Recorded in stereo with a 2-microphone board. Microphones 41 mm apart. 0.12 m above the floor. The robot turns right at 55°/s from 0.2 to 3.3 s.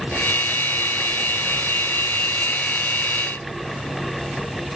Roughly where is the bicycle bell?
No bicycle bell in this recording.